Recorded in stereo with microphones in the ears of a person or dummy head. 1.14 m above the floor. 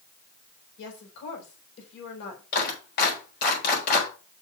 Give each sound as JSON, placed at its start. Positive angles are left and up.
{"t": 0.8, "sound": "a woman speaking", "side_deg": 60, "distance_m": 4.0}
{"t": 2.5, "sound": "a clap", "side_deg": 50, "distance_m": 4.0}